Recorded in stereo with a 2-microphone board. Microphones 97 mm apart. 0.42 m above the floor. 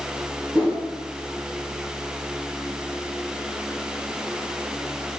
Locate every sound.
0.5 s a whoosh: 20° right (ahead or behind), 1.5 m